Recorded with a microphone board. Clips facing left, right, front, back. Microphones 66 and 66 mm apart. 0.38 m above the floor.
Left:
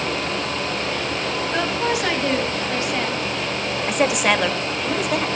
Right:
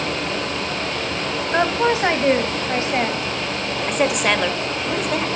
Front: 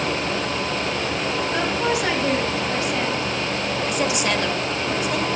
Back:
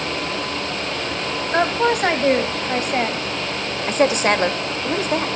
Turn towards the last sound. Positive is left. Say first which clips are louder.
# even, back 8 dB
turn(degrees=175)